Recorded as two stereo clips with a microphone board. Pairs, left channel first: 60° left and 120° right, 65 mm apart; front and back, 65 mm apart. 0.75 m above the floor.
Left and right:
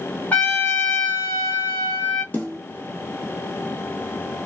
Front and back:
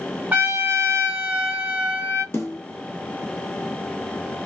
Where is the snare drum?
15° left, 1.1 m.